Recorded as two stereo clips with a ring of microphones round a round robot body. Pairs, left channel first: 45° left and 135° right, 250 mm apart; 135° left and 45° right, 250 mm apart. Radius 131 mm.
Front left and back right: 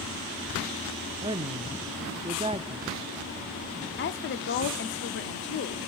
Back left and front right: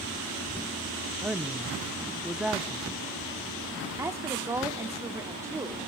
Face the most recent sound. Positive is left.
turn(degrees=30)